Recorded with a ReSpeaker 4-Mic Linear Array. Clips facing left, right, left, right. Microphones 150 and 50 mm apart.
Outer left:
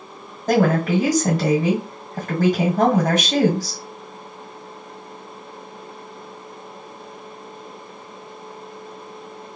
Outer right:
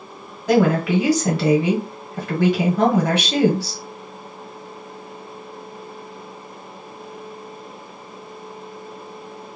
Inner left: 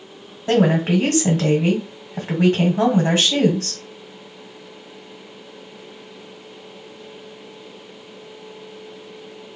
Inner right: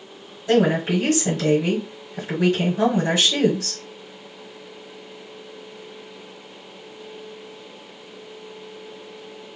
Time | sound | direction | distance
0.5 | a woman speaking | 45° left (ahead or behind) | 1.4 m